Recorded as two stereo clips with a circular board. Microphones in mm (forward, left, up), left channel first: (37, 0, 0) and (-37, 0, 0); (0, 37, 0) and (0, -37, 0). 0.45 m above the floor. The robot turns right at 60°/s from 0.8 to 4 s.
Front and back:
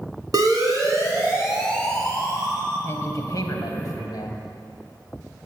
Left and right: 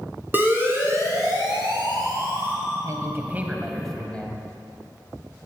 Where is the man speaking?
55° right, 2.5 m; by 4.5 s 15° left, 2.5 m.